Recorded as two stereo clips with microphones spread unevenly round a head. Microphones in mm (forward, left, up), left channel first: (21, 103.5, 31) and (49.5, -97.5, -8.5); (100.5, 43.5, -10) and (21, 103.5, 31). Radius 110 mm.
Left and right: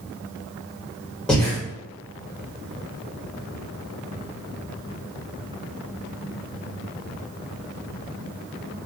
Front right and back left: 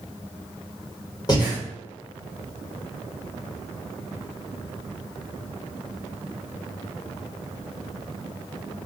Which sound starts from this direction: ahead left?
Breathing, at 1.3 s.